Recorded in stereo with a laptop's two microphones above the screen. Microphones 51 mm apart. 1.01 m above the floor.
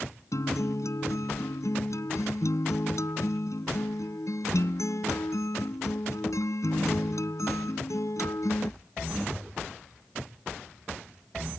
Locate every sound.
0.3 s a guitar: 85° left